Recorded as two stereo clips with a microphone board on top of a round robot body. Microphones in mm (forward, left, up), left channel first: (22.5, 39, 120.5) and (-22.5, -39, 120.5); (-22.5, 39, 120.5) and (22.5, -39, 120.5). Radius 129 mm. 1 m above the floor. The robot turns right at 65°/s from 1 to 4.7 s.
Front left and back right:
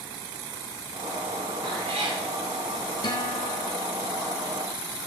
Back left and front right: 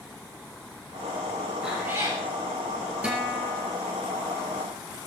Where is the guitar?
20° left, 2 m; by 3.7 s 65° left, 2 m.